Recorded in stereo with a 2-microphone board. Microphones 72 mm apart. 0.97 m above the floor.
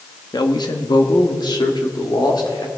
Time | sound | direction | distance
0.3 | a man speaking | 80° left | 1.3 m